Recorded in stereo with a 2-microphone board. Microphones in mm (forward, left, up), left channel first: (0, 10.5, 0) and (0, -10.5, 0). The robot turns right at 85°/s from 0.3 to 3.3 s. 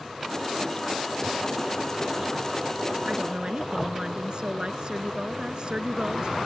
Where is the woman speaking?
65° right (ahead or behind); by 6.4 s 50° right (ahead or behind).